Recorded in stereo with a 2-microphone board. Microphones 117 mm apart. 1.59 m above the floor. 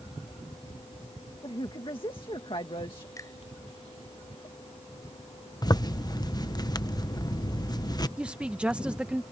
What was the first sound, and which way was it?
A woman speaking, 45° left (ahead or behind).